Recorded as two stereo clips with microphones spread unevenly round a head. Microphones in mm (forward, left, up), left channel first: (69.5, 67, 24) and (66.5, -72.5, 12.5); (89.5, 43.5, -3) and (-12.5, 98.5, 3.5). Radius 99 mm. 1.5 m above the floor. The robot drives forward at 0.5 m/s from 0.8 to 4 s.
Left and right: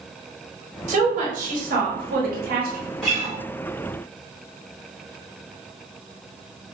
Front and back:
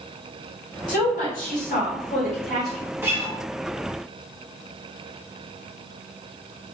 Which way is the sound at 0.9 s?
55° right.